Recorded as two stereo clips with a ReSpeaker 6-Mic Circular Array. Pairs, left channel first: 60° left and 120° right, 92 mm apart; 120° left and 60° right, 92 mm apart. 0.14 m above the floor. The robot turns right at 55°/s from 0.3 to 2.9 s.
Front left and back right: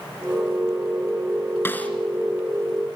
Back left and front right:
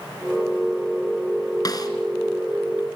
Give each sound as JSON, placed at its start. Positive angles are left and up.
{"t": 1.6, "sound": "a snare drum", "azimuth_deg": 115, "distance_m": 2.5}